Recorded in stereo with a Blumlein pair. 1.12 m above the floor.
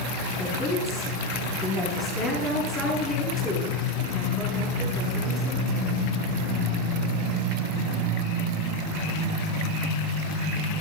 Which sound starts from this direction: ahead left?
A woman speaking, at 0.4 s.